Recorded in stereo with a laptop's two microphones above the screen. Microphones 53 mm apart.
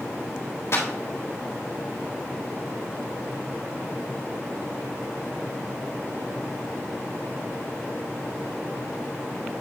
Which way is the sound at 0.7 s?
55° left (ahead or behind).